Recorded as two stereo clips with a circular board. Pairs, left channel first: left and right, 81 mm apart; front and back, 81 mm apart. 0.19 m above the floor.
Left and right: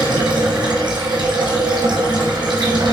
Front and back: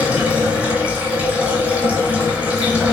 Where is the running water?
110° right, 0.9 m.